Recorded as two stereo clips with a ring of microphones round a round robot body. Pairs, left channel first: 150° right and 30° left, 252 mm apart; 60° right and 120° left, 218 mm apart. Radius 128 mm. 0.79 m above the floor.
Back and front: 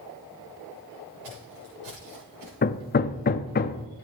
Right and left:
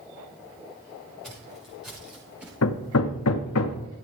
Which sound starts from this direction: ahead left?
Footsteps, at 1.2 s.